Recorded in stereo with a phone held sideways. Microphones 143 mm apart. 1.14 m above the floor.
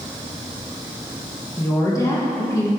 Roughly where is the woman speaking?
Left.